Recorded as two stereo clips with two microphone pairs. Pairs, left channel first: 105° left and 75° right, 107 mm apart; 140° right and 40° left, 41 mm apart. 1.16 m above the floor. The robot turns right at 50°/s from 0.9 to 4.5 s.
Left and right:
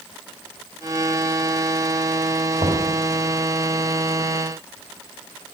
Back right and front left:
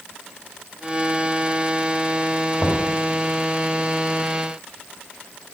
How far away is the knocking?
About 2.5 m.